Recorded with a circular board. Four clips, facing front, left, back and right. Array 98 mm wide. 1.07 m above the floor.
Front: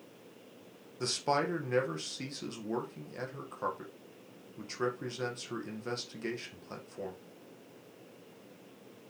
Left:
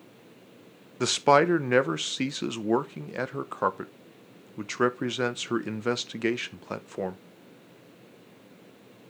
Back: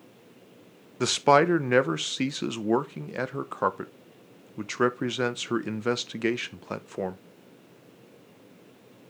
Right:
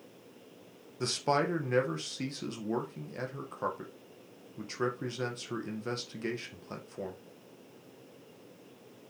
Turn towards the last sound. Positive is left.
turn(degrees=140)